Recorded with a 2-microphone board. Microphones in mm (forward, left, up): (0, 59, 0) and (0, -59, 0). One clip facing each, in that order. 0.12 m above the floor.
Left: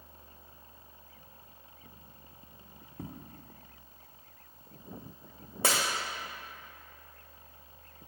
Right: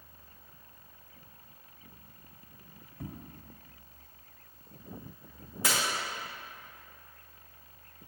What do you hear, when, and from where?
3.0 s footsteps: 85° left, 2.0 m
5.6 s breaking glass: 70° left (ahead or behind), 1.8 m